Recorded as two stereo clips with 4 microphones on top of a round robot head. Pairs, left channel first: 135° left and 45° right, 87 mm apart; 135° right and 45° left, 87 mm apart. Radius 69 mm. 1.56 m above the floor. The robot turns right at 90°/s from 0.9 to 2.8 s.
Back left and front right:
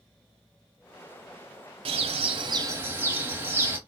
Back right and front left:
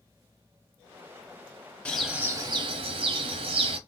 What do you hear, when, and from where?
1.9 s a bird: 60° right, 0.7 m; by 3.8 s 25° left, 0.7 m